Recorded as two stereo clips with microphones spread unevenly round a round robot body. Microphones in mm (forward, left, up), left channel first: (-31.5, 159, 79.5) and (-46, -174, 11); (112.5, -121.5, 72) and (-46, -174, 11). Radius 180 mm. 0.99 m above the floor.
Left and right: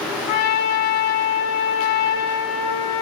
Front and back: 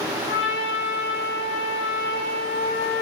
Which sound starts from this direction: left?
A trumpet, at 0.3 s.